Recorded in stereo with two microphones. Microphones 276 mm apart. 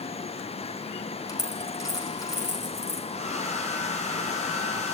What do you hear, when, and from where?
1.3 s a dropped coin: 15° left (ahead or behind), 6.5 m
3.1 s a hair dryer: 25° left (ahead or behind), 4.5 m